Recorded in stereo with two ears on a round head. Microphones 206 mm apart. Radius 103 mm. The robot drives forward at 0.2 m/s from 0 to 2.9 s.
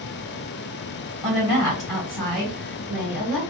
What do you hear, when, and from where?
1.2 s a woman speaking: centre (ahead or behind), 3 m